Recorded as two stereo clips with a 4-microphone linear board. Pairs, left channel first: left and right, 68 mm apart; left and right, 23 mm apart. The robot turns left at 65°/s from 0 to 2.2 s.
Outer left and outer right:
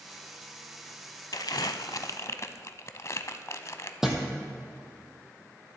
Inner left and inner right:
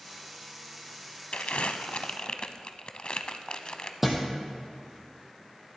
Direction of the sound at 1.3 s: 70° left (ahead or behind).